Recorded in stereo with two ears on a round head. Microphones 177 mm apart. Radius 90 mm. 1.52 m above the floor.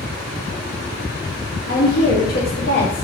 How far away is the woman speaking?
About 0.7 m.